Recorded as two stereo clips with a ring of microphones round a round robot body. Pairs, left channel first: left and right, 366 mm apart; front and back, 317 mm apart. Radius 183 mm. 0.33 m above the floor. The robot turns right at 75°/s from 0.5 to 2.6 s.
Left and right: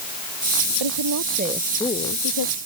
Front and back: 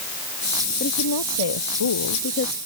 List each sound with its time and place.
0.8 s a woman speaking: 70° right; by 2.6 s 65° left